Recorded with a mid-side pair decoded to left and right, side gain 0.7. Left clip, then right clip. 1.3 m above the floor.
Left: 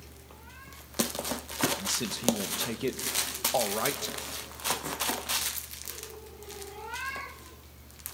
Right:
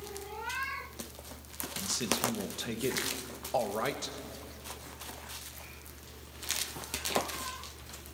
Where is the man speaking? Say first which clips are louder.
Right 1 dB; 10° left, 1.8 m.